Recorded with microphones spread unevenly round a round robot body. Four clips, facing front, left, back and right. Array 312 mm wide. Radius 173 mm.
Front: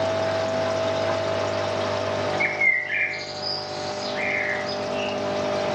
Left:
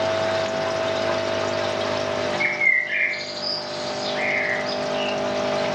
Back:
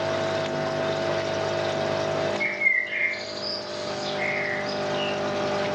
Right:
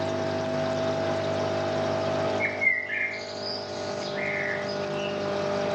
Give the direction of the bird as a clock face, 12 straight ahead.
10 o'clock.